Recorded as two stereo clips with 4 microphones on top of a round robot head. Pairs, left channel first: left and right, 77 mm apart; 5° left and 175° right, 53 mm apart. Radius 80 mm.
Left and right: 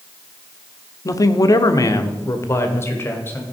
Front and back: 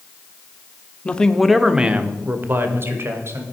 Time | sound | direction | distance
1.1 | a man speaking | 65° left | 1.1 m